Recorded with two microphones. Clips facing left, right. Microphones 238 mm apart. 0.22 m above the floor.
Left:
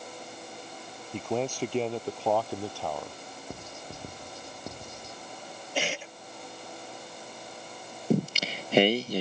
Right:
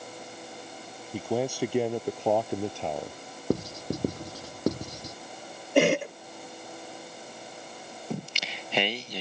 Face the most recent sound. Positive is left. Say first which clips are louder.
# left 10 dB
turn(degrees=45)  # may be behind; listen again after turning